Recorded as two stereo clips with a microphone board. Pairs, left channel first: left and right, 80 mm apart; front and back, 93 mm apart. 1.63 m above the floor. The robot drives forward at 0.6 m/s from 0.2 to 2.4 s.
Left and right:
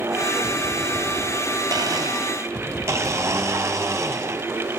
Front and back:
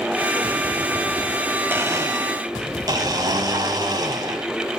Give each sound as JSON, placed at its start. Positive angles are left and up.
{"t": 1.7, "sound": "a blender", "azimuth_deg": -115, "distance_m": 0.6}